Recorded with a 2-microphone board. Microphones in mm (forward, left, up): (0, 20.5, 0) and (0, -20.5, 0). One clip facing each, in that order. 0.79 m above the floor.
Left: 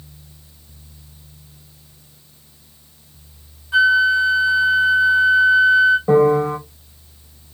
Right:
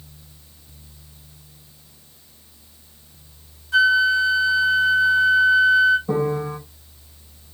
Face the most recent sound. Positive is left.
turn(degrees=75)  # may be behind; listen again after turning